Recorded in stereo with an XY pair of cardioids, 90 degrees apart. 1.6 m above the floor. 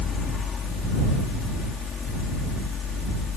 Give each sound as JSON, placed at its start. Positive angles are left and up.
{"t": 0.0, "sound": "a fan", "azimuth_deg": 55}